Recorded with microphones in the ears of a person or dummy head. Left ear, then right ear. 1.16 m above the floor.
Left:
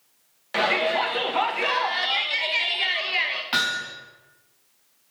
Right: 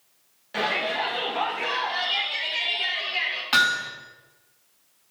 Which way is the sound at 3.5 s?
5° right (ahead or behind).